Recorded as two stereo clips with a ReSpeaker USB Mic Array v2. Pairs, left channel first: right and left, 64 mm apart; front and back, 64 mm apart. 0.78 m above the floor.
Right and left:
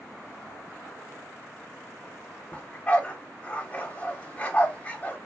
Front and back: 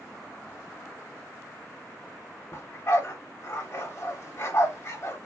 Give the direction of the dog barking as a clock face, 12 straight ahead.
1 o'clock.